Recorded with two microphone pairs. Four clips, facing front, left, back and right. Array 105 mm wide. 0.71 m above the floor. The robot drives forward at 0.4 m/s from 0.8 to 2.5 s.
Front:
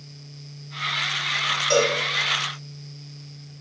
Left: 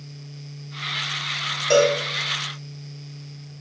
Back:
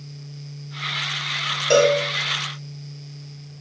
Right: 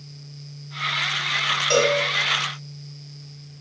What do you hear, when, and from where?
1.7 s a cowbell: 145° left, 0.5 m; by 2.0 s 155° left, 0.6 m